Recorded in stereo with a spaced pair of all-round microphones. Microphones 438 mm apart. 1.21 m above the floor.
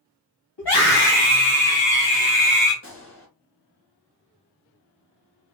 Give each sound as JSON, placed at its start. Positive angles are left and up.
{"t": 0.6, "sound": "a scream", "side_deg": 75, "distance_m": 2.5}
{"t": 2.8, "sound": "a gunshot", "side_deg": 35, "distance_m": 1.2}